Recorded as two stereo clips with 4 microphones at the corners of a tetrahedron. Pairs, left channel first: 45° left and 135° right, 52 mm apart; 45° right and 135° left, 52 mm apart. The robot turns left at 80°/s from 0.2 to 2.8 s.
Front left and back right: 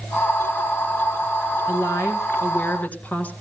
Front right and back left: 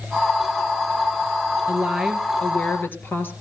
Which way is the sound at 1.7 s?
80° left.